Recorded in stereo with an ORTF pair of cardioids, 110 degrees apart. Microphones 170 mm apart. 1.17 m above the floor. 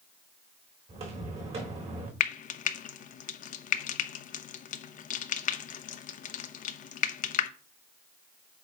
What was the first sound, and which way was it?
Footsteps, 40° right.